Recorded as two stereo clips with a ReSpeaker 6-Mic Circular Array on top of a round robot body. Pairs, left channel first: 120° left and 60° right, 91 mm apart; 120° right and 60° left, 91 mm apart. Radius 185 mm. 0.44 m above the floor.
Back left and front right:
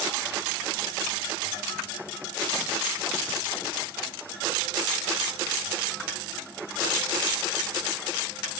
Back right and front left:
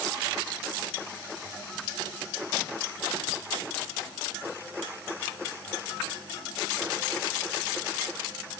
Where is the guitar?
I don't hear a guitar.